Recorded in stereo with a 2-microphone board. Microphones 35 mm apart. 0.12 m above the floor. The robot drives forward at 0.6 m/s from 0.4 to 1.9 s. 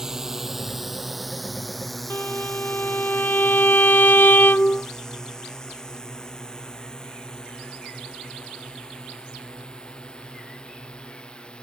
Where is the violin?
70° left (ahead or behind).